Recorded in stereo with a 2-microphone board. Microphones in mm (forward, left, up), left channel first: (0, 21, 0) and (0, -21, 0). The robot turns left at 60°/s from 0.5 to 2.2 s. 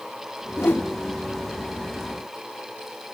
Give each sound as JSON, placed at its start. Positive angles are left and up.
{"t": 0.6, "sound": "a whoosh", "side_deg": 60, "distance_m": 1.1}